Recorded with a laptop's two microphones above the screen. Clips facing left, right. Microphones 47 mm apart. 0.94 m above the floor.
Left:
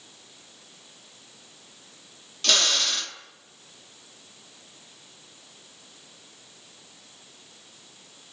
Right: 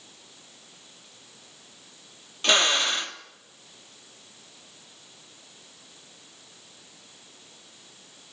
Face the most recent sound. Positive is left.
turn(degrees=-25)  # may be behind; listen again after turning